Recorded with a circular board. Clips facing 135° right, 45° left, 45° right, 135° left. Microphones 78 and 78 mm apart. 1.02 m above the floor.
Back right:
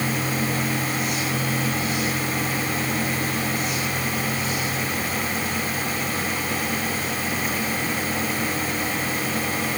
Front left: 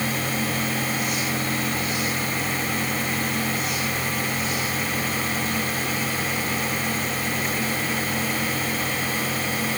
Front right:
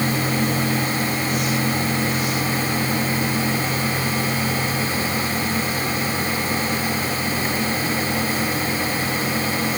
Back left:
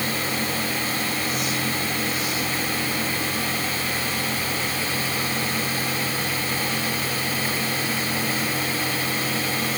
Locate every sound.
Only background noise.